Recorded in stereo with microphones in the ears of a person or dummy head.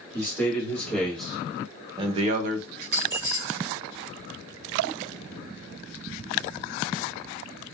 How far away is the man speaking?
About 2 m.